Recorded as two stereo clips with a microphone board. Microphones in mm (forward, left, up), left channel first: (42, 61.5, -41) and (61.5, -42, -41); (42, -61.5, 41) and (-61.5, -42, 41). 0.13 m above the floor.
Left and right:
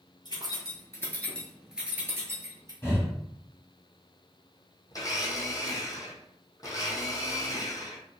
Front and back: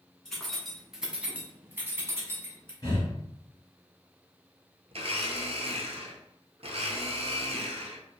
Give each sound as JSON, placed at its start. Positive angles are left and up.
{"t": 0.2, "sound": "keys jangling", "azimuth_deg": 70, "distance_m": 1.0}
{"t": 2.8, "sound": "breathing", "azimuth_deg": 35, "distance_m": 1.7}
{"t": 4.9, "sound": "a blender", "azimuth_deg": 155, "distance_m": 0.6}